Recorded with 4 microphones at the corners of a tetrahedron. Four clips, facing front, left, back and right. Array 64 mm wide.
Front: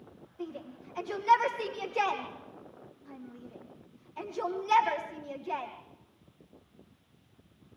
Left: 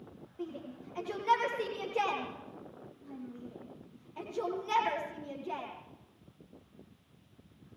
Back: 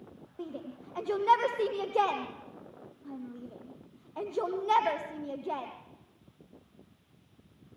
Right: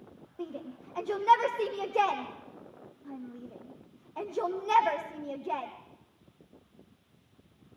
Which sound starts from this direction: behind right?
A shout, at 0.4 s.